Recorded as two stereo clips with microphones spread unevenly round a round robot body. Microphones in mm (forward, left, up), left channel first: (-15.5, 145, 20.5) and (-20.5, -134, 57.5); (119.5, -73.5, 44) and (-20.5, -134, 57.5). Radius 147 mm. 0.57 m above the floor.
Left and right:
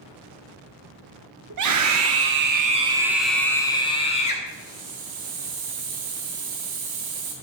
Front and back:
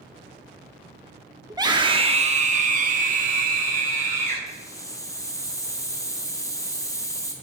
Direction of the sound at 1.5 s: 90° right.